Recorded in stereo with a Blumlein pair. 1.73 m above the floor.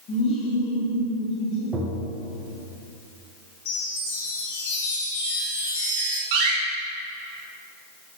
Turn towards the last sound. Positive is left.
turn(degrees=-45)